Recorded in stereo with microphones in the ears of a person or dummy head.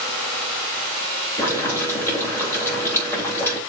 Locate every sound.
1.4 s boiling: 10° left (ahead or behind), 2.5 m